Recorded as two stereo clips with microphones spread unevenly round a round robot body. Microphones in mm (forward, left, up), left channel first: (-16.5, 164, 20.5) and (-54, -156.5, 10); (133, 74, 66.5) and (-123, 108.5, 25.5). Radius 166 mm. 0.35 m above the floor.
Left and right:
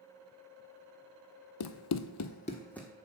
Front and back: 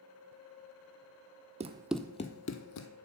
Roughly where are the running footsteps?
Left.